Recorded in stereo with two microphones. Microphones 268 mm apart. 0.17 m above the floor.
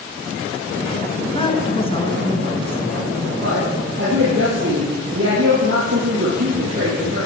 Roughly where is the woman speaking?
Left.